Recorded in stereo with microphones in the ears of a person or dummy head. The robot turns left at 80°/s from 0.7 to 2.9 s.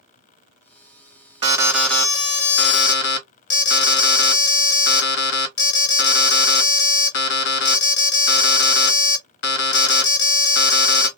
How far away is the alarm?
About 1.0 m.